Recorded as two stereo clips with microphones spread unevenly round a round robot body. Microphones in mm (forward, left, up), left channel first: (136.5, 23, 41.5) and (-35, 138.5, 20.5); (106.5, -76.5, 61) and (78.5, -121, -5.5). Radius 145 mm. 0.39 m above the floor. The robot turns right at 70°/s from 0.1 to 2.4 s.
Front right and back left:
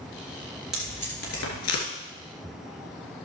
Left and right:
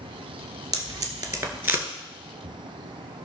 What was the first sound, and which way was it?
Tape being pulled, 125° right.